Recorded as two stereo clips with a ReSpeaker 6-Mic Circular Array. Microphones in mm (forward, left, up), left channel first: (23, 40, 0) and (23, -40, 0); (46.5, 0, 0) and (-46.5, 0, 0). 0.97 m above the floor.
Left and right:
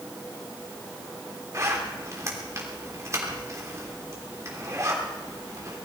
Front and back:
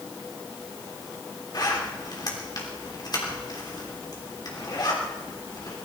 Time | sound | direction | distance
1.5 | a zipper | 40° right | 3.5 m